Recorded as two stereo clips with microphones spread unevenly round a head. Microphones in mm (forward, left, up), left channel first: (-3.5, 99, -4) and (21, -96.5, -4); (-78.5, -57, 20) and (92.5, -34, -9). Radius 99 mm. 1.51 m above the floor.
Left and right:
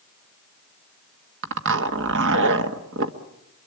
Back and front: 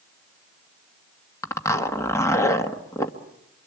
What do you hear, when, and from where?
1.4 s a zipper: 105° right, 1.5 m